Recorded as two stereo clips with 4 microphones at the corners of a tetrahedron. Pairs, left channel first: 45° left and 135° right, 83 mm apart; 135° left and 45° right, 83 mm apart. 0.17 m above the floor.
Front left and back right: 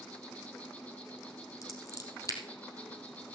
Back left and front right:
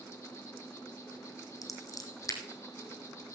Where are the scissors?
90° left, 2.5 m.